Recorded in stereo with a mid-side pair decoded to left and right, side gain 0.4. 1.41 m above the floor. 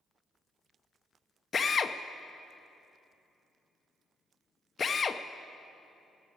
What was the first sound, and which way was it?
A drill, 45° left.